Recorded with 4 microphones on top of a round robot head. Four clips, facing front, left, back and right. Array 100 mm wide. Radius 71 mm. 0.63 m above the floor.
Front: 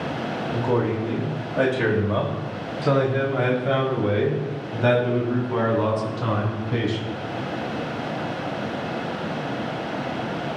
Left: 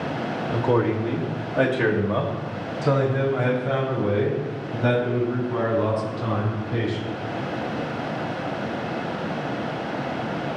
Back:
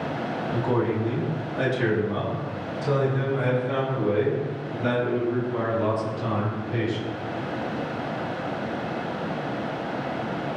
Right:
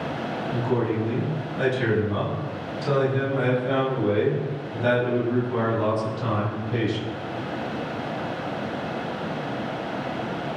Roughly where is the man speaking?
Left.